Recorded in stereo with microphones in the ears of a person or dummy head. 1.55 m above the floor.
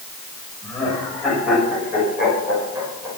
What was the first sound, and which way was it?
Laughter, 5° right (ahead or behind).